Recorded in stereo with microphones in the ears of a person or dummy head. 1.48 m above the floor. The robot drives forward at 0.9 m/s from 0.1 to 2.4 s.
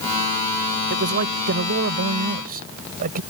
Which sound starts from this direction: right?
A man speaking, at 0.9 s.